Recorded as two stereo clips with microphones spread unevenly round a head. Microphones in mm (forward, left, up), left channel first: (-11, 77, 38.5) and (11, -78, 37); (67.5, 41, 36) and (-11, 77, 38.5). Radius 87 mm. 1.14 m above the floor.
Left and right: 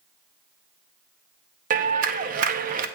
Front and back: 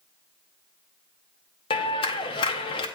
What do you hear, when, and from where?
1.7 s a clap: 45° right, 0.7 m